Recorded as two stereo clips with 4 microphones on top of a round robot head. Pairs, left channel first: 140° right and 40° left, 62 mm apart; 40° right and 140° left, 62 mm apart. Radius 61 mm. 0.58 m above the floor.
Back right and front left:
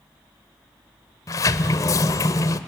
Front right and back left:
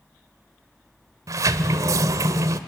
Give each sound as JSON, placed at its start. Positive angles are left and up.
{"t": 1.3, "sound": "a sliding door", "azimuth_deg": 180, "distance_m": 0.6}